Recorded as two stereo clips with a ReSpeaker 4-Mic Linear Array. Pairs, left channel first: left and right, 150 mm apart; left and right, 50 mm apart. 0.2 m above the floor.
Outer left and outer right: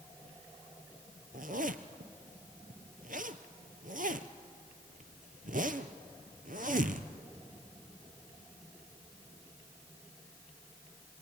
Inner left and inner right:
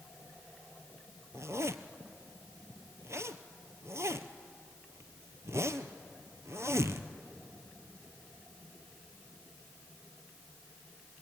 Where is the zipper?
80° right, 1.0 m.